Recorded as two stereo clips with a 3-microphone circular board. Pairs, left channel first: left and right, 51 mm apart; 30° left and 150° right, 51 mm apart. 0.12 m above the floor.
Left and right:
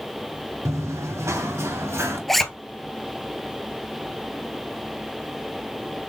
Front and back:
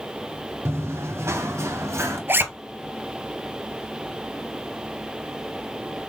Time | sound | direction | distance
0.7 | running footsteps | 115° right | 1.6 m
2.3 | a zipper | 175° left | 0.7 m